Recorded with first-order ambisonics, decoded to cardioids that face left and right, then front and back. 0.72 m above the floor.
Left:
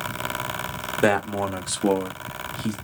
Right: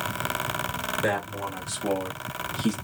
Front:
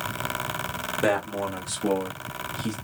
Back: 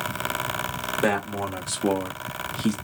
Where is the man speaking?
90° left, 1.1 m; by 2.8 s 145° right, 0.7 m.